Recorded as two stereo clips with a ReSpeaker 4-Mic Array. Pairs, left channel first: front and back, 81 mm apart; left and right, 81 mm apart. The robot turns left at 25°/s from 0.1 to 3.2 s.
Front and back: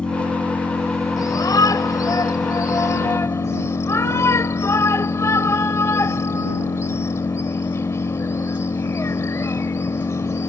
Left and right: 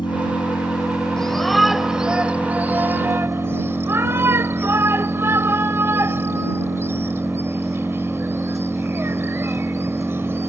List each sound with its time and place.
0.0 s an engine running: 80° left; by 10.5 s straight ahead
1.2 s a shout: 10° left; by 10.5 s 40° right